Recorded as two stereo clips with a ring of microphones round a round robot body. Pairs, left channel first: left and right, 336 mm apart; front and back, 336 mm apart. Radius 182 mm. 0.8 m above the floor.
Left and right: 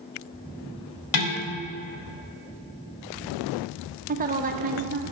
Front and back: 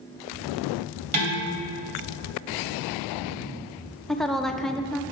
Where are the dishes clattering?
115° left, 3 m.